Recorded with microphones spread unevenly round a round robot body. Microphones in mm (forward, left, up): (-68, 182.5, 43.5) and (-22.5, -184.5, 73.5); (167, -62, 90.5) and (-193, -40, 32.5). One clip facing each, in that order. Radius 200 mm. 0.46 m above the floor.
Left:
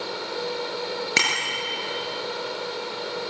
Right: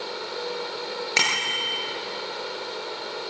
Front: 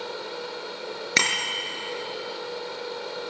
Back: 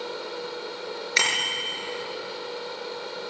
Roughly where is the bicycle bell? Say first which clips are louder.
Left 1 dB, front 1 dB; ahead left.